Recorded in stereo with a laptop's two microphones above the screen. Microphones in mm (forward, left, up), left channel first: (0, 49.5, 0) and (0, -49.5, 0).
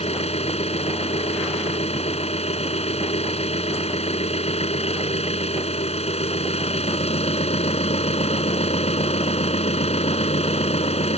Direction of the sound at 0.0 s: 85° left.